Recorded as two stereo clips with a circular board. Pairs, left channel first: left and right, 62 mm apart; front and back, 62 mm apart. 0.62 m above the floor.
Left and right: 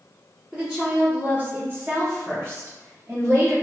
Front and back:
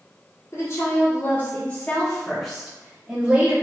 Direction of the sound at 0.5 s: 15° right.